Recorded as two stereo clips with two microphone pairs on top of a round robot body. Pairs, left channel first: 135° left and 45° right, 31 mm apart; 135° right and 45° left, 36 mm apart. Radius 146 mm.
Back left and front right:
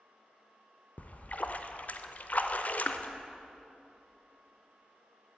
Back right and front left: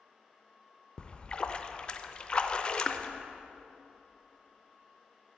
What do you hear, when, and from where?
1.0 s a splash: 165° left, 0.6 m